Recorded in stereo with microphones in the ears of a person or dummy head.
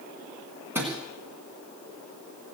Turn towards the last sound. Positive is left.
turn(degrees=-10)  # may be behind; listen again after turning